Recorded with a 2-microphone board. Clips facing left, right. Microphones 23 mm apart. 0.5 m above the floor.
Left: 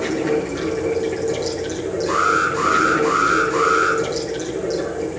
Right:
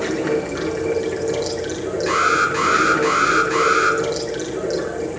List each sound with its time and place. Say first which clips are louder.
0.0 s running water: even; 15° right (ahead or behind), 6 m
2.1 s an alarm: right 1 dB; 45° right (ahead or behind), 5 m